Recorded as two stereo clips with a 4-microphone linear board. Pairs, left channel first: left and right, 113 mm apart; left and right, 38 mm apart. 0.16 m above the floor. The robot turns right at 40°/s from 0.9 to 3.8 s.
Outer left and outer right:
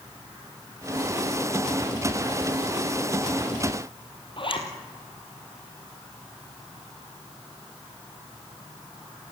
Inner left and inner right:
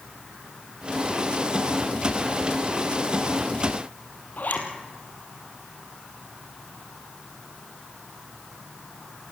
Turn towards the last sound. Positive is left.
turn(degrees=50)  # may be behind; listen again after turning